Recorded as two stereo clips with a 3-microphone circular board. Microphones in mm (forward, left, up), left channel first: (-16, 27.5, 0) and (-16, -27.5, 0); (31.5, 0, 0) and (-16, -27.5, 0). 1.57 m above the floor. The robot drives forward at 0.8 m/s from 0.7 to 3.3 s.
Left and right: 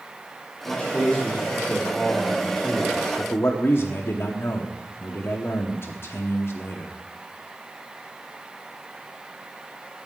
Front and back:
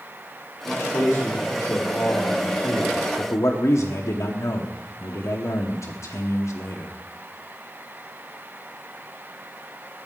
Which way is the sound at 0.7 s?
15° left.